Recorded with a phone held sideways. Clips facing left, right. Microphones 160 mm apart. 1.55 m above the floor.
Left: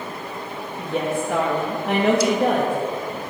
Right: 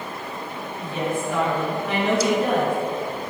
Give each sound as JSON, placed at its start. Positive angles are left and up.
{"t": 0.8, "sound": "a woman speaking", "side_deg": 65, "distance_m": 2.0}